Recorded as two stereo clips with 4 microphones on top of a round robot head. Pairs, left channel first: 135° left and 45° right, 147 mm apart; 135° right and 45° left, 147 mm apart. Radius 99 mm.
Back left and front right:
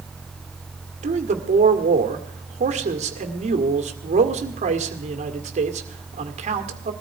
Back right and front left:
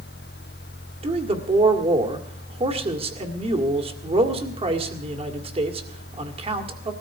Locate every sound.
1.0 s a man speaking: 5° right, 1.9 m